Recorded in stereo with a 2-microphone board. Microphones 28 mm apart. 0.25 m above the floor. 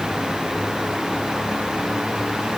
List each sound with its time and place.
Only background noise.